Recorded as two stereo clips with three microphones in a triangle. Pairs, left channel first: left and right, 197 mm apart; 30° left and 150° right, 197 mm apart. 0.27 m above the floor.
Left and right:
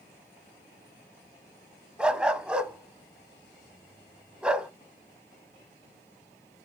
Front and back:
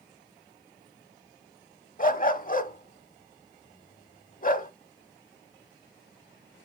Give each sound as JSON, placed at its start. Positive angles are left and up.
{"t": 2.0, "sound": "a dog barking", "azimuth_deg": -5, "distance_m": 0.7}